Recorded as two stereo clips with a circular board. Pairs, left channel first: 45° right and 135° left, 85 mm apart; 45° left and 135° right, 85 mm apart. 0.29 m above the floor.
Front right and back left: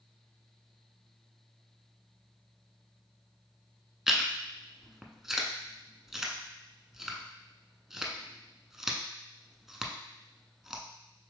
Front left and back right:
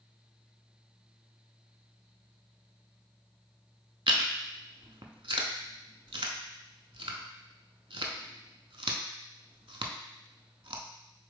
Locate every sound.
4.1 s chewing: 140° right, 0.6 m